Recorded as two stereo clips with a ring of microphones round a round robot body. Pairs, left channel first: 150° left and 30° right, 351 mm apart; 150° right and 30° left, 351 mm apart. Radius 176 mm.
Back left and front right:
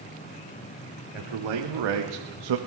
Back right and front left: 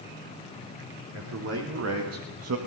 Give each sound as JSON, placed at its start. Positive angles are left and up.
{"t": 1.1, "sound": "a man speaking", "azimuth_deg": -20, "distance_m": 3.5}